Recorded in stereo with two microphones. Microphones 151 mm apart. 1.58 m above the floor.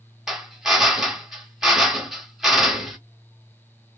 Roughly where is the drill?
Centre.